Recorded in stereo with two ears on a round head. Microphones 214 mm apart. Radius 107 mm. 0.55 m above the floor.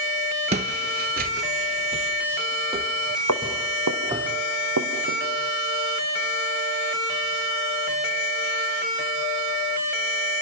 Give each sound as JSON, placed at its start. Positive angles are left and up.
{"t": 0.5, "sound": "footsteps", "side_deg": -30, "distance_m": 0.6}
{"t": 3.3, "sound": "footsteps", "side_deg": -75, "distance_m": 3.0}